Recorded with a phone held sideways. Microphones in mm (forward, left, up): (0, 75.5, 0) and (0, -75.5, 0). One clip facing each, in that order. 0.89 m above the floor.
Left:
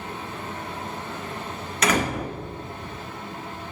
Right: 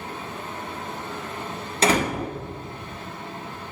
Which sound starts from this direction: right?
A door slam, at 1.8 s.